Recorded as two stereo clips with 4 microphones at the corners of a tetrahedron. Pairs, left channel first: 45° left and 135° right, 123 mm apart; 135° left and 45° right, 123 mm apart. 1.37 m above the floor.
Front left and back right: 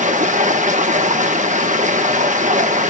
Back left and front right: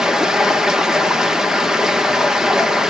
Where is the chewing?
No chewing in this recording.